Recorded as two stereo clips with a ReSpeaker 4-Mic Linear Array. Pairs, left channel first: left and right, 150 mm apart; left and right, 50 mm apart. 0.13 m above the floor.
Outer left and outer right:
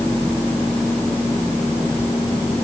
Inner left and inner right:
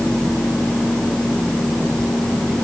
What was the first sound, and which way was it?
Only background noise.